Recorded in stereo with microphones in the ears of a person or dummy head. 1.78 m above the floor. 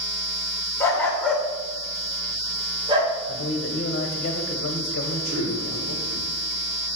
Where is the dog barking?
15° left (ahead or behind), 2 m; by 3.1 s 35° right (ahead or behind), 2.5 m.